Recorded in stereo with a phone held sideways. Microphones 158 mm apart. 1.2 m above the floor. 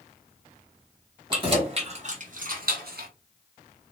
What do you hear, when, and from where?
1.3 s keys jangling: 30° right (ahead or behind), 1.1 m; by 3.1 s 80° right, 0.7 m